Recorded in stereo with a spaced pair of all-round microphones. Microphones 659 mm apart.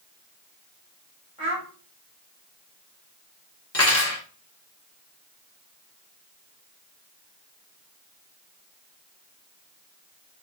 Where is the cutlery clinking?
25° left (ahead or behind), 0.7 m.